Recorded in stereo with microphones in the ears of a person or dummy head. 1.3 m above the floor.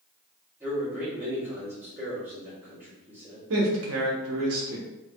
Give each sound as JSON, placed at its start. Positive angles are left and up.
{"t": 0.6, "sound": "a man speaking", "side_deg": -10, "distance_m": 1.6}
{"t": 3.5, "sound": "a man speaking", "side_deg": -85, "distance_m": 0.9}